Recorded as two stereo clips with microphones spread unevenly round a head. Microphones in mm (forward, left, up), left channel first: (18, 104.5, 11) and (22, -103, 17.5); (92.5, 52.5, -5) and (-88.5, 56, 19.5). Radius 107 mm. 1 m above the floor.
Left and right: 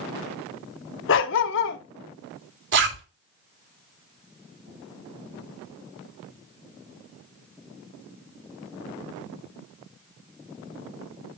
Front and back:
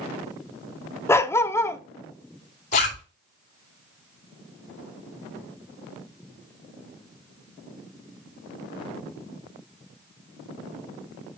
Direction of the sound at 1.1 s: 80° left.